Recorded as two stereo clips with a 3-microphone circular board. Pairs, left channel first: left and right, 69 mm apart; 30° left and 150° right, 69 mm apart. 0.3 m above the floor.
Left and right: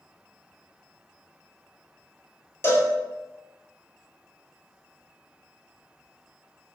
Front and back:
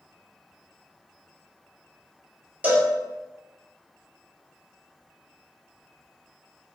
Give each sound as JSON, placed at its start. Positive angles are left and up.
{"t": 2.6, "sound": "a cowbell", "azimuth_deg": 145, "distance_m": 1.0}